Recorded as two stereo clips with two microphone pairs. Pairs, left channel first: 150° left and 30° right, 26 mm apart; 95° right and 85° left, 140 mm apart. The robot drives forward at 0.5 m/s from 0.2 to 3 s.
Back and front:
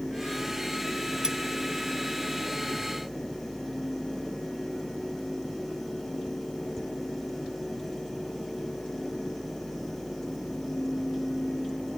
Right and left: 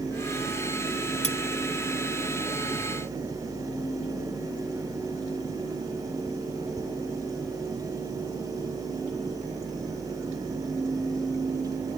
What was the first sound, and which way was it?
Cutlery clinking, 85° right.